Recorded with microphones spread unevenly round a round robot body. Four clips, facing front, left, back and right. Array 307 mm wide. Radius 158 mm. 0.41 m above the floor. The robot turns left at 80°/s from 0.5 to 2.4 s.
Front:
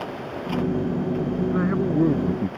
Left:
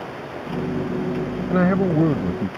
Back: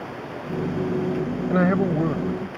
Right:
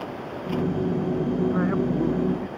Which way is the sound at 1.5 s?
135° left.